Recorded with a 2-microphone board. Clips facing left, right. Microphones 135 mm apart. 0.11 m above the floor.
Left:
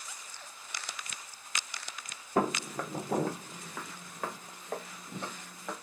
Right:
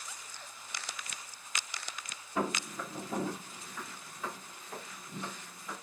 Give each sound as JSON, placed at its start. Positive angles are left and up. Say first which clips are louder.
{"t": 2.4, "sound": "footsteps", "louder": "left 4 dB", "side_deg": 50, "distance_m": 1.0}